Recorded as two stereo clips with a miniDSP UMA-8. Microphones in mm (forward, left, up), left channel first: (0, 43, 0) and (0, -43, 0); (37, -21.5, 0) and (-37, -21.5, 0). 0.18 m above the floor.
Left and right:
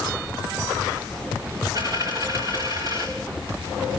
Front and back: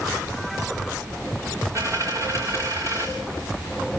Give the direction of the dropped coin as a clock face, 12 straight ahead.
5 o'clock.